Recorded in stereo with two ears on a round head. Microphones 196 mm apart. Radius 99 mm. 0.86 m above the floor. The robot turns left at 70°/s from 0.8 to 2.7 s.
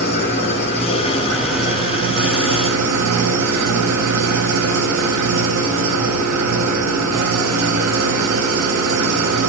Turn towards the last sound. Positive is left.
turn(degrees=-85)